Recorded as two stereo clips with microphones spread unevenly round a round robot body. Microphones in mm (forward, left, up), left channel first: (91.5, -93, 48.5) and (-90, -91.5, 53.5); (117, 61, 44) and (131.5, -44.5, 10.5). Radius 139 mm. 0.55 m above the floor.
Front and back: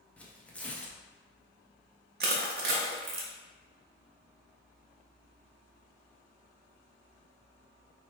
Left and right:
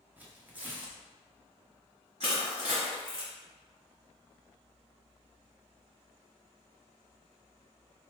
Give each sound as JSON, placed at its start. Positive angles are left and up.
{"t": 0.2, "sound": "tearing paper", "azimuth_deg": -75, "distance_m": 0.7}
{"t": 2.2, "sound": "crushing", "azimuth_deg": -150, "distance_m": 0.8}